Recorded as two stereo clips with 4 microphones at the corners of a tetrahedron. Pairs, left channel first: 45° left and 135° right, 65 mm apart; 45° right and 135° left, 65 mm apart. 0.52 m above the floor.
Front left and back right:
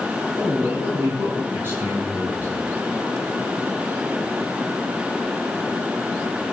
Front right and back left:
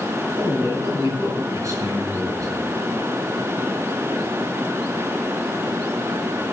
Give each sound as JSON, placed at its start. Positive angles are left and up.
{"t": 0.4, "sound": "a man speaking", "azimuth_deg": 175, "distance_m": 6.0}